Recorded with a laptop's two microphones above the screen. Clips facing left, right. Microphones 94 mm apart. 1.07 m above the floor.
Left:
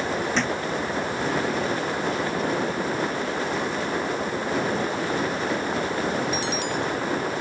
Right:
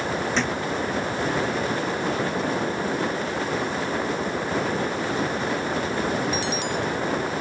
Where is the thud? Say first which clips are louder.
Even; centre (ahead or behind).